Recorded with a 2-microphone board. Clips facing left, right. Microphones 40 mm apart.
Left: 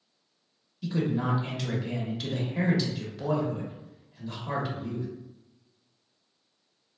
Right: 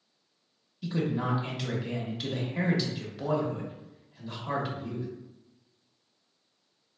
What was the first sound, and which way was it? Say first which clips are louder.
A man speaking: left 2 dB; 5° right (ahead or behind).